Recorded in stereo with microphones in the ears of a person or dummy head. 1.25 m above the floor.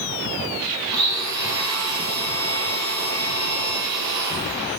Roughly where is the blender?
Centre.